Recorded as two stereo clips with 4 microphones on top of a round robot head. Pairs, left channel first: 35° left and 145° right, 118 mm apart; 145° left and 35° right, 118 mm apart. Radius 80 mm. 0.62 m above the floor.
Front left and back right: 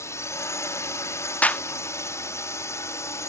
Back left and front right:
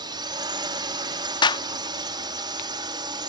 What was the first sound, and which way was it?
A drone, 15° right.